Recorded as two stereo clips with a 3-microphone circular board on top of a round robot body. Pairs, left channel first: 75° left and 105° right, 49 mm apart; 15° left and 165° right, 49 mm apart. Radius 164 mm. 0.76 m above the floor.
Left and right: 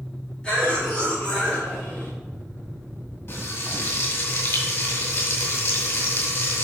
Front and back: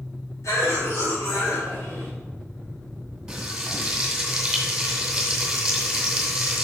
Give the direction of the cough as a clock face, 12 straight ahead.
12 o'clock.